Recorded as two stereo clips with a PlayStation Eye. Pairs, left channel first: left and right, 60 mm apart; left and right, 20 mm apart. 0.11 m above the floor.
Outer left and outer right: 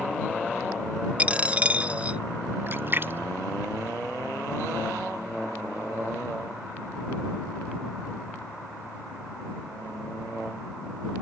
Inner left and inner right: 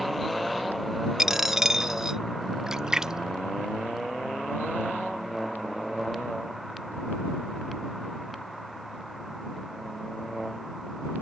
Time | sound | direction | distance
1.2 | a dropped coin | 20° right (ahead or behind) | ?
2.7 | a splash | 35° right (ahead or behind) | ?